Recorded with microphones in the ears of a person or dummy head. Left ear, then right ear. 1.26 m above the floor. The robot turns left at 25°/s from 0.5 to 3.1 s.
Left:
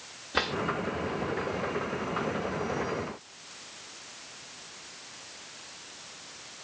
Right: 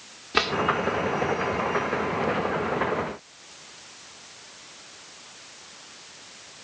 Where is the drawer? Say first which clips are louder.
Right 5 dB; 20° right (ahead or behind), 1.7 m; by 0.6 s 25° right (ahead or behind), 1.7 m.